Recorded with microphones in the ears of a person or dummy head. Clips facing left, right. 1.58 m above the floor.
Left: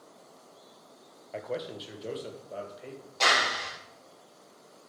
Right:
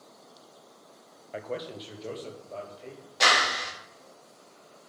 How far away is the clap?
About 3 m.